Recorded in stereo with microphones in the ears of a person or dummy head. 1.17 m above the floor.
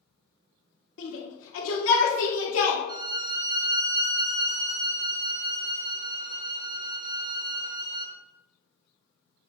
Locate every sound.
1.0 s a shout: 75° left (ahead or behind), 2.5 m
2.9 s a violin: 25° right (ahead or behind), 0.8 m